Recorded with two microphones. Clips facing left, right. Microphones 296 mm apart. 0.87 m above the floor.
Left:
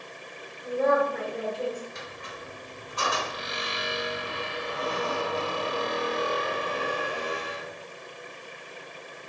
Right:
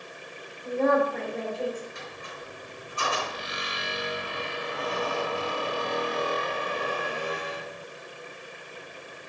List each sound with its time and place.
0.6 s a woman speaking: 5° left (ahead or behind), 2 m
1.9 s a squeak: 75° left (ahead or behind), 1.4 m